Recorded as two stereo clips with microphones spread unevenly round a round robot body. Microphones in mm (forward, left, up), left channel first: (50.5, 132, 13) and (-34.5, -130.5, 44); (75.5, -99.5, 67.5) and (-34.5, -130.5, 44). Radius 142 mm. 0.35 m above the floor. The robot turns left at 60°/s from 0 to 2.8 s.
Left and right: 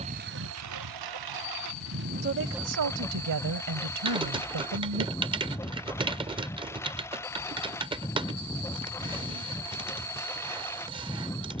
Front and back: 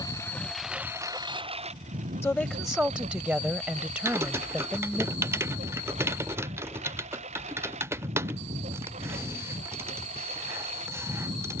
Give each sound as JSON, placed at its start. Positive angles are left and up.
{"t": 0.0, "sound": "a lawn mower", "azimuth_deg": -40}
{"t": 2.2, "sound": "a woman speaking", "azimuth_deg": -55}
{"t": 4.0, "sound": "typing on a keyboard", "azimuth_deg": -175}